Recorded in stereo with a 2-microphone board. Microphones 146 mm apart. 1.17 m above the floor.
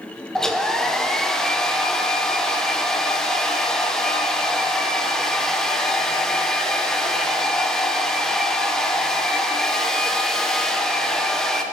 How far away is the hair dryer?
About 0.8 m.